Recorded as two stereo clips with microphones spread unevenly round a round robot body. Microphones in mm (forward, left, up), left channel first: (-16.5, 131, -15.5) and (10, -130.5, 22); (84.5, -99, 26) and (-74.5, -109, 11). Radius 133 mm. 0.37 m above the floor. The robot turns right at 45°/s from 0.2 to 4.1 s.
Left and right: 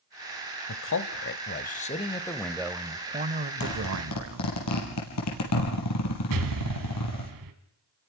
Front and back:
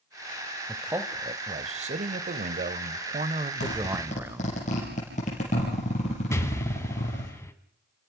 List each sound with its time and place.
0.7 s a man speaking: 100° left, 1.4 m; by 4.5 s 110° right, 1.4 m
3.6 s a zipper: 45° left, 5.5 m; by 7.3 s 70° left, 5.5 m
6.3 s an explosion: 70° right, 2.5 m